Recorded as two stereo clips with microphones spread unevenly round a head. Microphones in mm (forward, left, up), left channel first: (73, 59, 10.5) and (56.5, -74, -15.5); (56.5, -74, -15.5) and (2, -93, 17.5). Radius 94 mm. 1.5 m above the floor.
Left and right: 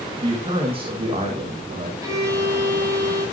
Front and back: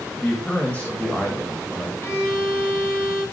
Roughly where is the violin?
Ahead right.